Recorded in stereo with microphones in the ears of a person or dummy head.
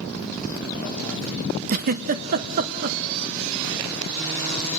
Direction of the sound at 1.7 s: 50° right (ahead or behind).